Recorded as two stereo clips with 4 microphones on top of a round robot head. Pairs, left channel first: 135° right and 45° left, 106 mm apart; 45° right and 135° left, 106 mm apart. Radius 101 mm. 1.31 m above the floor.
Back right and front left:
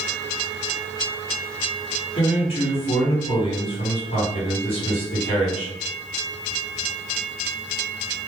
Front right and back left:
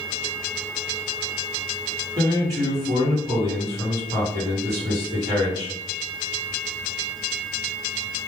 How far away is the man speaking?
About 1.3 m.